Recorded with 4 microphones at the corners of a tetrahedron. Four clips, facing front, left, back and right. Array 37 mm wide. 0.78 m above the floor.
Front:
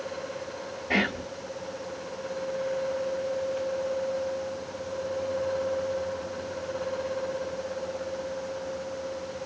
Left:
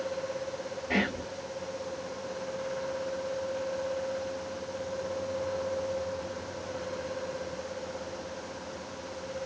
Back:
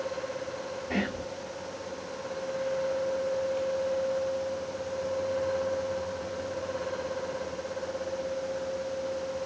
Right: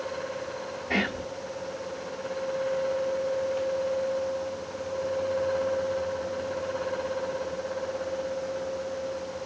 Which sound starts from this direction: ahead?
Whispering, at 0.9 s.